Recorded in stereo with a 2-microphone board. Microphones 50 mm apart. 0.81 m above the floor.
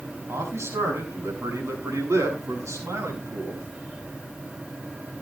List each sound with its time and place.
0.3 s a man speaking: 65° right (ahead or behind), 6.5 m; by 3.7 s 80° right, 7.5 m